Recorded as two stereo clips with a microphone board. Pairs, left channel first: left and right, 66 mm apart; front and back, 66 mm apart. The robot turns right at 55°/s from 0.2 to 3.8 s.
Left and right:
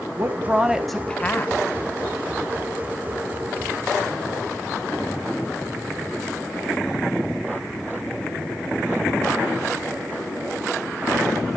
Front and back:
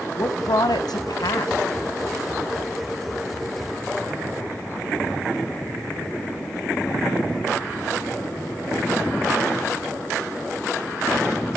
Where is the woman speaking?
40° right, 1.2 m; by 1.6 s 35° left, 1.2 m.